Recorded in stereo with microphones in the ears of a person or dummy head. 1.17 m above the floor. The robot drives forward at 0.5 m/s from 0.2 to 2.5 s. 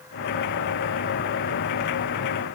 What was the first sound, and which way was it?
Only background noise.